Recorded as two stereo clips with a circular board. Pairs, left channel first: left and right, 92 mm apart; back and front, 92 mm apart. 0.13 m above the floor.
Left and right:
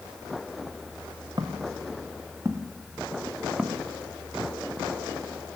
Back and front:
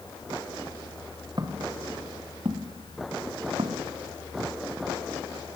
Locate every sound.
1.4 s footsteps: 45° right, 2.5 m; by 4.5 s 15° left, 2.5 m